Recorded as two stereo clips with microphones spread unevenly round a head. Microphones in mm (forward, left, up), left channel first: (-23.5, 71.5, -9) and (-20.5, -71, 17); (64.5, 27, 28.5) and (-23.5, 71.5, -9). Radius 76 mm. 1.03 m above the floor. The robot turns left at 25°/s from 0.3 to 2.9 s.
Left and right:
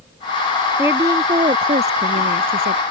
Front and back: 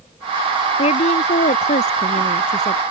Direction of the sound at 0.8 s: 10° right.